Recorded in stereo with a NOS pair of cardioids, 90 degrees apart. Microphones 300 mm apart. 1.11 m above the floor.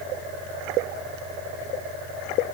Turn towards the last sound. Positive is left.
No sound to turn to.